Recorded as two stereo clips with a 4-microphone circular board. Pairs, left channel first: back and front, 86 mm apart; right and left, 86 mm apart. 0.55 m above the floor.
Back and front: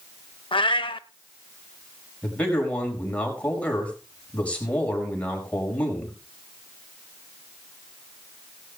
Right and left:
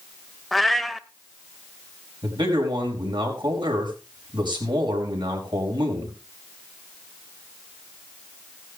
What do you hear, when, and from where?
0.5 s a cat meowing: straight behind, 0.6 m
2.2 s a man speaking: 105° left, 4.5 m